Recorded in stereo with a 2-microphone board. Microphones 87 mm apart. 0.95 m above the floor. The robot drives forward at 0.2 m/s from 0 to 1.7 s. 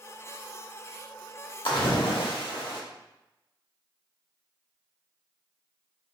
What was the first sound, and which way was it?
A splash, 80° left.